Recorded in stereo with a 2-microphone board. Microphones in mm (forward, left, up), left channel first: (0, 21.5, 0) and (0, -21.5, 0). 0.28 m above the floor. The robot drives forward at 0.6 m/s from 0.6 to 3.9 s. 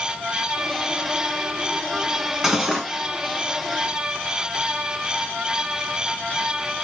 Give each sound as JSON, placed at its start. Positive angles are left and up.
{"t": 2.4, "sound": "cutlery clinking", "side_deg": -10, "distance_m": 1.6}